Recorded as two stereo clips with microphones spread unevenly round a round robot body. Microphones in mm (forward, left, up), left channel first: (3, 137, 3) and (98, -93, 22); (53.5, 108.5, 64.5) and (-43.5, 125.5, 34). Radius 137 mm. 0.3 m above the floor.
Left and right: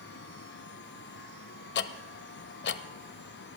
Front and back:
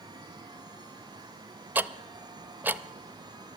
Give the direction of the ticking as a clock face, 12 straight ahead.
8 o'clock.